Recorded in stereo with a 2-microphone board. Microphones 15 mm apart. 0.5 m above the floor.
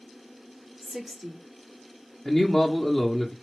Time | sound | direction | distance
0.8 | a woman speaking | 20° right (ahead or behind) | 1.7 m
2.2 | a man speaking | 5° left (ahead or behind) | 0.9 m